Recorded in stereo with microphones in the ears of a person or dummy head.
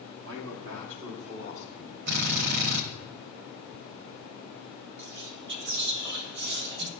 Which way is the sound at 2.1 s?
55° right (ahead or behind).